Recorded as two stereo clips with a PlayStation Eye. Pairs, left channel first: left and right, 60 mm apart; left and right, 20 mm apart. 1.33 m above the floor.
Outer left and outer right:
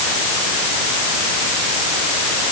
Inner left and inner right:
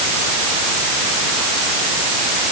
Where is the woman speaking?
No woman speaking in this recording.